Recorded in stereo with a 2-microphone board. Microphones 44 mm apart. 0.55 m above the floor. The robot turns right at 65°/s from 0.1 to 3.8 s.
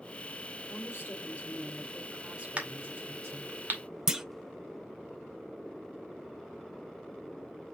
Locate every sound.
0.7 s a woman speaking: 95° left, 2 m; by 3.6 s 75° right, 2 m
2.6 s a crack: 30° right (ahead or behind), 2.0 m; by 3.8 s 50° right (ahead or behind), 2.0 m
4.1 s a clunk: 10° right (ahead or behind), 0.6 m